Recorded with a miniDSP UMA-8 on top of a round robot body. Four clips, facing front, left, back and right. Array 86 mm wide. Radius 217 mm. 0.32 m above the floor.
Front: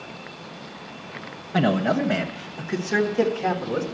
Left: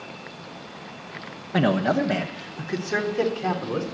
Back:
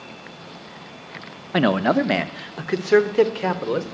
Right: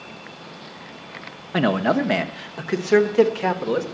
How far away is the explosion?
I don't hear an explosion.